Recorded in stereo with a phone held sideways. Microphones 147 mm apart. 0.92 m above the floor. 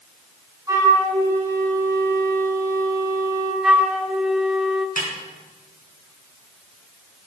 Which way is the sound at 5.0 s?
75° left (ahead or behind).